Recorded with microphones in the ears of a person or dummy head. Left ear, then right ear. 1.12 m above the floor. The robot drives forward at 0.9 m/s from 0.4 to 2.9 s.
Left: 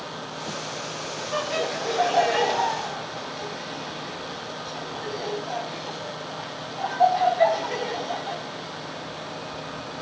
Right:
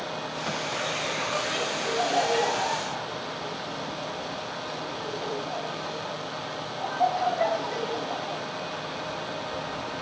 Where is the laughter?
15° left (ahead or behind), 7.5 m; by 8.4 s 20° left (ahead or behind), 6 m.